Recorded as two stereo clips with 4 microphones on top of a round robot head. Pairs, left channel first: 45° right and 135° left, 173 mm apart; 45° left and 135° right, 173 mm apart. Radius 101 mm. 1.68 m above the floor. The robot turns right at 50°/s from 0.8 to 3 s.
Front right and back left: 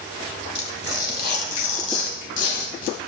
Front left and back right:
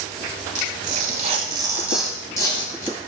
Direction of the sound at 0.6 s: 105° right.